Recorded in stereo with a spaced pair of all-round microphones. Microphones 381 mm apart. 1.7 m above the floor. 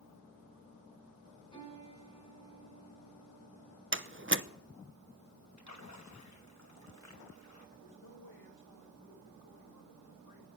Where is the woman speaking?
80° left, 5.5 m.